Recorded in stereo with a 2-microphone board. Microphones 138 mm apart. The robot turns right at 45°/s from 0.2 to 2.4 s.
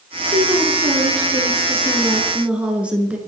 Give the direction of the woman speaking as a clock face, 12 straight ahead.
3 o'clock.